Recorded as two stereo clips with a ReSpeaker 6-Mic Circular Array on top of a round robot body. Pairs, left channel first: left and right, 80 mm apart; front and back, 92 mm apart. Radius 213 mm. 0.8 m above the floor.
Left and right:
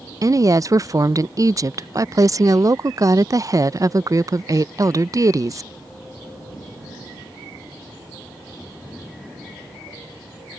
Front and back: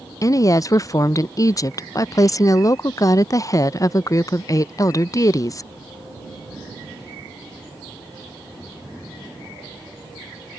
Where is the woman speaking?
50° right.